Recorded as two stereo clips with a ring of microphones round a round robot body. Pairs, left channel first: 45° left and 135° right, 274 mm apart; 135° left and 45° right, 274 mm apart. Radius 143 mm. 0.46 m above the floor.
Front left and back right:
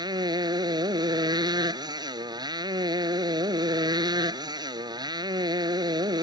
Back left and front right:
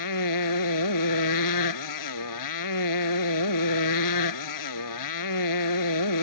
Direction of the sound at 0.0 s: 150° left.